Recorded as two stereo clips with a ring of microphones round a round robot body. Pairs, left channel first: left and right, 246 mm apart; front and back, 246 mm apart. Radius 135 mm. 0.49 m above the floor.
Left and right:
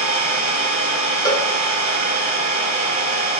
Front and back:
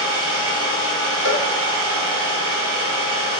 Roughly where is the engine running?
Behind right.